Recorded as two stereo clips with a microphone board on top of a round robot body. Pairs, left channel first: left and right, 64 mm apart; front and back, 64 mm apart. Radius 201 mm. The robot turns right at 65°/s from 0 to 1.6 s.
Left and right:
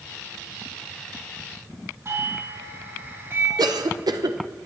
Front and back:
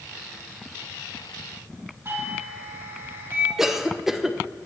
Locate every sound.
2.0 s a doorbell: 130° right, 4.5 m
3.6 s a cough: 95° right, 0.9 m